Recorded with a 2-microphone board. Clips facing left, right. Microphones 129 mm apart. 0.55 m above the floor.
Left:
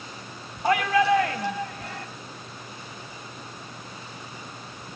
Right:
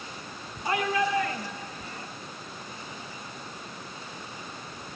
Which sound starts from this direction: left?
A shout, at 0.6 s.